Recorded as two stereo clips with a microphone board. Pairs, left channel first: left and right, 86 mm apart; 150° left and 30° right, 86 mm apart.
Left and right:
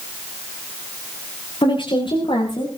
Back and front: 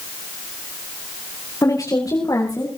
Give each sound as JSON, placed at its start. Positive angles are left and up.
{"t": 1.6, "sound": "a woman speaking", "azimuth_deg": 100, "distance_m": 7.5}